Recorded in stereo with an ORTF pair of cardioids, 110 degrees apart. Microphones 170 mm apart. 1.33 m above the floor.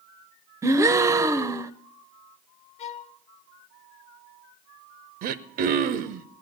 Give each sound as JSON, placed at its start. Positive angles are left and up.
{"t": 0.6, "sound": "a gasp", "azimuth_deg": -20, "distance_m": 0.8}
{"t": 2.8, "sound": "a violin", "azimuth_deg": 40, "distance_m": 1.1}
{"t": 5.2, "sound": "throat clearing", "azimuth_deg": -65, "distance_m": 0.9}